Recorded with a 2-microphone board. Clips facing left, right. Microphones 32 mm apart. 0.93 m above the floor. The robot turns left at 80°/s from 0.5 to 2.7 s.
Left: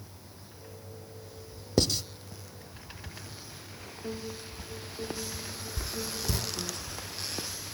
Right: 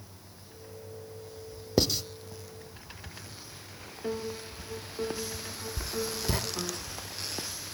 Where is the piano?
30° right (ahead or behind), 2.5 m.